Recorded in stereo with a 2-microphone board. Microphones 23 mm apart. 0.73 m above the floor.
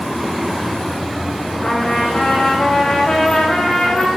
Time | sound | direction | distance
1.6 | a trumpet | 40° left (ahead or behind) | 5 m